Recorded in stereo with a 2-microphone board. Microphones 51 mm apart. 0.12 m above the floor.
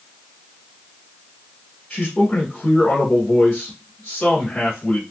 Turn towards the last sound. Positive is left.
turn(degrees=15)  # may be behind; listen again after turning